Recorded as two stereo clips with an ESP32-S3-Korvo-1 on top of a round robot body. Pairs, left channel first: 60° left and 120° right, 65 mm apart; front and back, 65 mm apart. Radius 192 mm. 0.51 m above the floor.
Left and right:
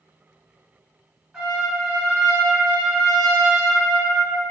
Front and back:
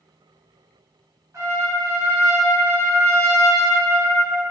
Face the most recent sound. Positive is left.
turn(degrees=170)